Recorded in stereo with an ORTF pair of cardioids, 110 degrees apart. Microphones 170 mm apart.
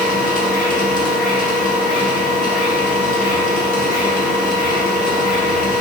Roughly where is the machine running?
Ahead left.